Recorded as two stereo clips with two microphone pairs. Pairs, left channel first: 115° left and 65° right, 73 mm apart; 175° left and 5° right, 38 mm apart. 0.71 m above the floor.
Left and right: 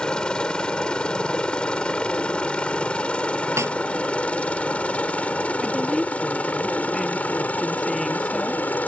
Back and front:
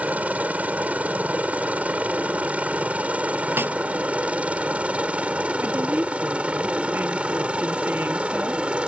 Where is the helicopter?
35° left; by 8.9 s 50° left.